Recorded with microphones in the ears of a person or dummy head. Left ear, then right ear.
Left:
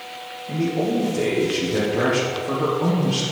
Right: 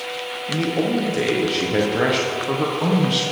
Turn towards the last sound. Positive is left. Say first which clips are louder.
# right 1 dB
turn(degrees=-25)  # may be behind; listen again after turning